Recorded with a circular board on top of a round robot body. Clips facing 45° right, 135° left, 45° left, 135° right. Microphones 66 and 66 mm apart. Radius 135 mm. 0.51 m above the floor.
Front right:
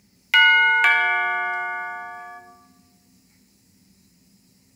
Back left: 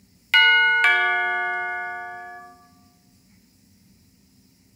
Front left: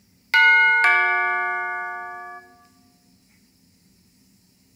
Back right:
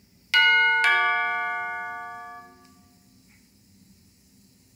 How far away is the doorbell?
About 1.3 m.